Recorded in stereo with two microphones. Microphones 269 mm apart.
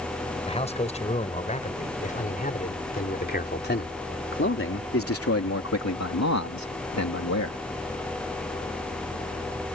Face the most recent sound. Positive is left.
turn(degrees=65)  # may be behind; listen again after turning